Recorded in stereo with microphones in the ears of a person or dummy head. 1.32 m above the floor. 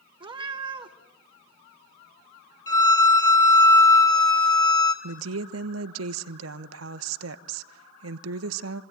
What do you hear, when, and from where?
0.2 s a cat meowing: 30° right (ahead or behind), 1.5 m
2.7 s a violin: 20° left (ahead or behind), 1.4 m
5.0 s a woman speaking: 80° right, 1.1 m